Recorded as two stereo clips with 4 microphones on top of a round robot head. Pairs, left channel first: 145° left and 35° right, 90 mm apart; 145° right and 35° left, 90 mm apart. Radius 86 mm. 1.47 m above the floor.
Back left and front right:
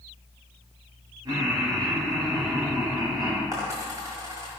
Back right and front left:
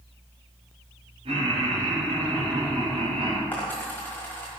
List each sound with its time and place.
1.2 s laughter: 10° left, 3.5 m
3.5 s a dropped coin: 80° right, 1.4 m